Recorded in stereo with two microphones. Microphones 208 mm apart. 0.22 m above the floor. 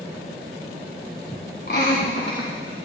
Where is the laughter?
55° left (ahead or behind), 1.8 m; by 2.8 s 65° left (ahead or behind), 2.5 m.